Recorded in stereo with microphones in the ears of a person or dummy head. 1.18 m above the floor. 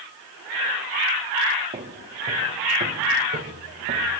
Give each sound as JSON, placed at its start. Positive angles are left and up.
{"t": 1.7, "sound": "footsteps", "side_deg": -35, "distance_m": 4.5}